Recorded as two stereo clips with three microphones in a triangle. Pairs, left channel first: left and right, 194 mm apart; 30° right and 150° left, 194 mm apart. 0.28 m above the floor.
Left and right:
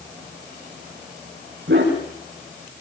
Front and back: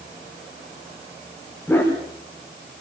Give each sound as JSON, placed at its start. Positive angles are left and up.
{"t": 1.7, "sound": "a dog barking", "azimuth_deg": -110, "distance_m": 7.0}